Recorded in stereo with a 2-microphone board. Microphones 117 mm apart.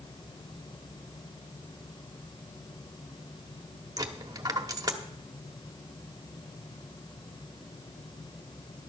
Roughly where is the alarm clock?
I don't hear an alarm clock.